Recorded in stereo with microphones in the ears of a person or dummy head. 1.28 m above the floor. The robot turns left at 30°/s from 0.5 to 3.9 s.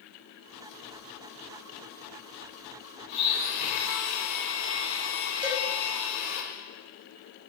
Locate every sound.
3.1 s a blender: 55° left (ahead or behind), 0.7 m; by 6.4 s 75° left (ahead or behind), 0.7 m
5.4 s a cowbell: 25° right (ahead or behind), 1.0 m